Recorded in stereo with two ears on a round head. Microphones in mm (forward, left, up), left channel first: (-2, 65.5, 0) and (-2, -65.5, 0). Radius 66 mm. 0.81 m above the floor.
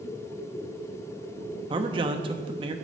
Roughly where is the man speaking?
Right.